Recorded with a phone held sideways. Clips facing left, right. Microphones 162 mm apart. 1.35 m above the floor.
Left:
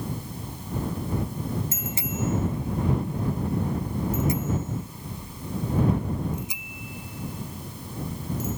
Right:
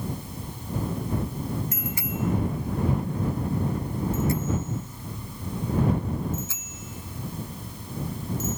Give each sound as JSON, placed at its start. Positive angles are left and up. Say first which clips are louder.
{"t": 1.7, "sound": "a bicycle bell", "louder": "even", "side_deg": 25}